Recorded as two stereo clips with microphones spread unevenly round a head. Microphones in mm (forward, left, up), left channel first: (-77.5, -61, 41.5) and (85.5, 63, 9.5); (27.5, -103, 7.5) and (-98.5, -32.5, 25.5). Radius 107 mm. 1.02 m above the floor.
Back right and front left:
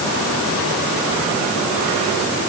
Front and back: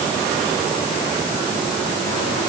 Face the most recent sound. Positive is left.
No sound to turn to.